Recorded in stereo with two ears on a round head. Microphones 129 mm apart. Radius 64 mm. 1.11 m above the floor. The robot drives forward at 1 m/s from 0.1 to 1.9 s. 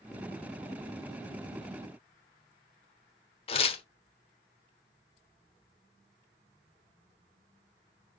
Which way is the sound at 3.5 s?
40° left (ahead or behind).